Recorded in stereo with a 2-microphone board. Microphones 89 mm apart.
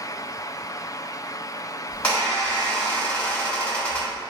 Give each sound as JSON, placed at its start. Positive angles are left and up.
{"t": 1.9, "sound": "a squeak", "side_deg": 15, "distance_m": 1.4}